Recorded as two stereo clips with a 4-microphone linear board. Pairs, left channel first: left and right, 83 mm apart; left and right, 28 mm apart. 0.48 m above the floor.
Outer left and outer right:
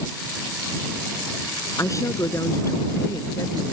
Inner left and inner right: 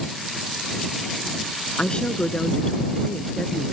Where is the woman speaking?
40° left (ahead or behind).